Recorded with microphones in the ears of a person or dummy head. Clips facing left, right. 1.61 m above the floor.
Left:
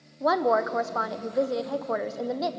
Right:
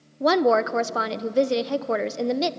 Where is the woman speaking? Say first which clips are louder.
Right 4 dB; 40° right (ahead or behind), 0.7 m.